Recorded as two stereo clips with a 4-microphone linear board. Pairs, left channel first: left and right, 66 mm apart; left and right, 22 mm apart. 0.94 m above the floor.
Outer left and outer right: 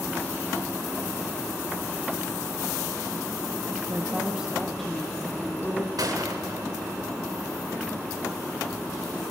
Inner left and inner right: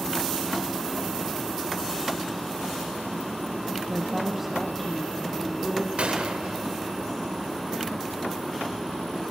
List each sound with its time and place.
3.9 s a woman speaking: 40° right (ahead or behind), 1.4 m; by 5.9 s 30° left (ahead or behind), 2.5 m
6.0 s a gunshot: 80° right, 1.6 m